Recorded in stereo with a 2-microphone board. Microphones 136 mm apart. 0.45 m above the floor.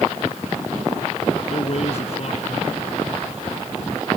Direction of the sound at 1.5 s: 55° left (ahead or behind).